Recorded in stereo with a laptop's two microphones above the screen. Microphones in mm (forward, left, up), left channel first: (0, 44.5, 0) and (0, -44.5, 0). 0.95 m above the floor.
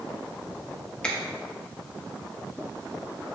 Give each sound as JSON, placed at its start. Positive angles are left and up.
{"t": 1.0, "sound": "a finger snap", "side_deg": 10, "distance_m": 1.4}